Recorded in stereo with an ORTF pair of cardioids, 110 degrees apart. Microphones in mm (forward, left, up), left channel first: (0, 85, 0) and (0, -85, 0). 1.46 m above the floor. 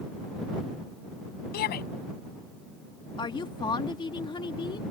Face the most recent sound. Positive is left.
turn(degrees=30)